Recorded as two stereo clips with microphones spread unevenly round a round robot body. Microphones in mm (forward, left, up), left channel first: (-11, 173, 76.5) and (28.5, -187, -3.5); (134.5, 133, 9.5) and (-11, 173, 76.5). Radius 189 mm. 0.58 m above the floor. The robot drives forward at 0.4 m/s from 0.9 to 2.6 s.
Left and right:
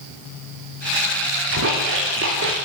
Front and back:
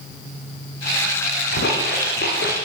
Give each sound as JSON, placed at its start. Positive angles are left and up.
{"t": 1.5, "sound": "a splash", "azimuth_deg": -25, "distance_m": 8.0}